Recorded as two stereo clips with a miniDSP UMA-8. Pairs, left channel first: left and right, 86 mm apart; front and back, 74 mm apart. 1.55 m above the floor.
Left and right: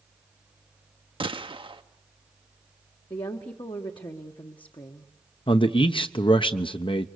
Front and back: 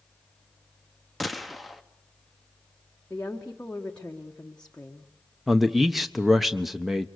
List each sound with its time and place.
1.2 s a gunshot: 90° right, 0.8 m
3.1 s a woman speaking: 70° left, 1.2 m
5.5 s a man speaking: 90° left, 0.9 m